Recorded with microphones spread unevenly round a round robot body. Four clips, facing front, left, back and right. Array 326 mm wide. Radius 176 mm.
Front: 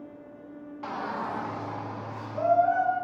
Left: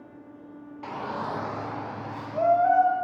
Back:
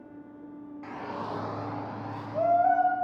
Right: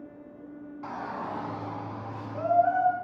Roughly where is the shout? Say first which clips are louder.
Left 3 dB, front 4 dB; ahead left.